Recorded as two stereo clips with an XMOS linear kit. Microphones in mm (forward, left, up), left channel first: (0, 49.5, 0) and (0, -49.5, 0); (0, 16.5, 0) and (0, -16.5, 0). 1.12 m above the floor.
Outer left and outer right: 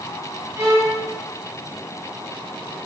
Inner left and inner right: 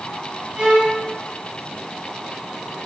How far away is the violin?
About 3.5 m.